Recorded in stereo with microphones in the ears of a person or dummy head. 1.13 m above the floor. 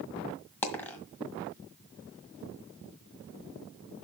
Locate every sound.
0.6 s a dropped coin: 10° left (ahead or behind), 1.7 m